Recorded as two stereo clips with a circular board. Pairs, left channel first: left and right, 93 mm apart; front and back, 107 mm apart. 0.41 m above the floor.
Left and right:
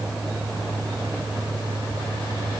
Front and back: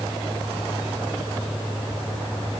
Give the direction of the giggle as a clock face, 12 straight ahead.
No giggle in this recording.